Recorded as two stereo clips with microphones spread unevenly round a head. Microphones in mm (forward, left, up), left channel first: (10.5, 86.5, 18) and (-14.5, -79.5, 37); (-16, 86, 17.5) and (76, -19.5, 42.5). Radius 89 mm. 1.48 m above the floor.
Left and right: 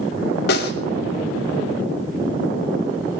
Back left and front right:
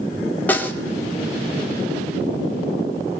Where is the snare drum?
50° left, 3 m.